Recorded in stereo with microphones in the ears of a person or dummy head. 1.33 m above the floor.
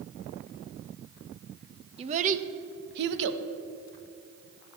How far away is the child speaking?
About 1.0 m.